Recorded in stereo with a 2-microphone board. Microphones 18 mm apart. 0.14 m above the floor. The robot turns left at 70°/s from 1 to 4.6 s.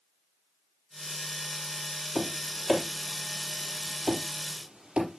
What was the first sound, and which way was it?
Tapping, 60° left (ahead or behind).